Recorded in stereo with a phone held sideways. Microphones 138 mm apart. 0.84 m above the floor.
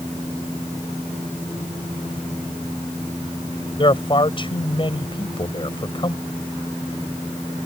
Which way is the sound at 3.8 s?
35° left (ahead or behind).